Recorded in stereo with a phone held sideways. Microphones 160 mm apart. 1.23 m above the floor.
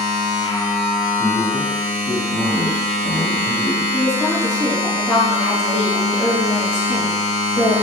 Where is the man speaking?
45° left (ahead or behind), 1.1 m.